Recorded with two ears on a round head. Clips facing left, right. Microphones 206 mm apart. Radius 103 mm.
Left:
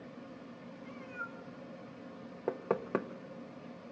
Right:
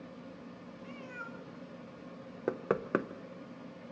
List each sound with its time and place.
0.8 s a cat meowing: 40° right (ahead or behind), 1.8 m
2.5 s knocking: 15° right (ahead or behind), 0.8 m